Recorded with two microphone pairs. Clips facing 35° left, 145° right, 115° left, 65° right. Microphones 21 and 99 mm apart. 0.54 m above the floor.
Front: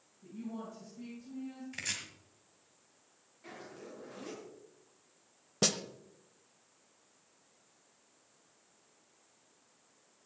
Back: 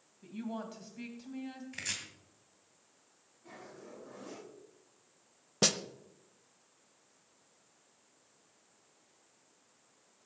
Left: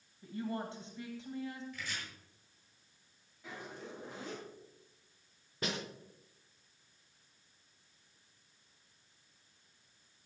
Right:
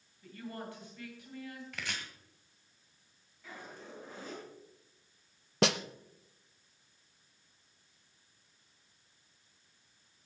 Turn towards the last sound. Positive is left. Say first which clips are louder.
# back 2 dB, right 10 dB
turn(degrees=-70)